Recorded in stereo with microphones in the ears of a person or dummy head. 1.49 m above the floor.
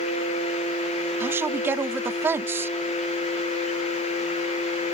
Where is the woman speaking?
10° right (ahead or behind).